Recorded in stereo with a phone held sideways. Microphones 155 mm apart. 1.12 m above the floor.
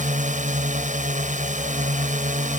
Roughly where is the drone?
Right.